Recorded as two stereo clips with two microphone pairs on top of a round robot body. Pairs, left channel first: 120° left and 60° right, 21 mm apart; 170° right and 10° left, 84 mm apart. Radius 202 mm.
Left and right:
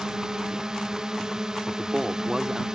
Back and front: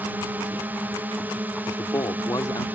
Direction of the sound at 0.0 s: 30° right.